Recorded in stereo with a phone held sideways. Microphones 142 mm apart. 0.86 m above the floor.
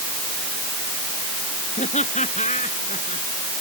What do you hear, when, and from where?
1.8 s laughter: 55° left (ahead or behind)